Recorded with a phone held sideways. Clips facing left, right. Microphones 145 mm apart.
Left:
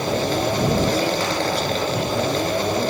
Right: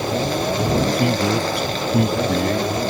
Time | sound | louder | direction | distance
0.9 | a man speaking | right 2 dB | 55° right (ahead or behind) | ?